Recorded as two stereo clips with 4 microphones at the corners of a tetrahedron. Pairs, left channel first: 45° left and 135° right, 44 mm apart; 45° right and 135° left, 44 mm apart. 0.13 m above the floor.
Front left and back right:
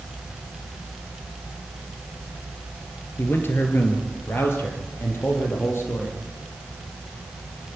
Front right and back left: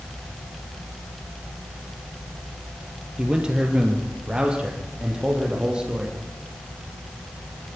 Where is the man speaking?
70° left, 3 m; by 6.2 s 65° left, 6 m.